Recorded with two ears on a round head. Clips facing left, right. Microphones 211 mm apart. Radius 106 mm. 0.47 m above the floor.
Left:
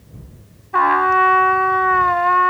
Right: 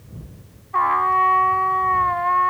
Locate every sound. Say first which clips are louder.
0.7 s a trumpet: left 6 dB; 60° left (ahead or behind)